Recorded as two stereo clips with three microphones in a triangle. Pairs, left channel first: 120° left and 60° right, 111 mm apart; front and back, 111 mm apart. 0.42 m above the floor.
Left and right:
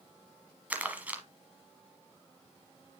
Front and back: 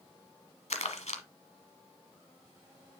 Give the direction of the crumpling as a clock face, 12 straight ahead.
11 o'clock.